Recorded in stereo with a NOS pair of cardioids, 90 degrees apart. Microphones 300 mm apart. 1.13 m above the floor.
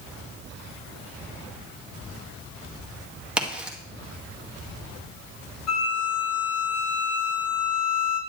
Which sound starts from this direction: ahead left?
A violin, at 5.7 s.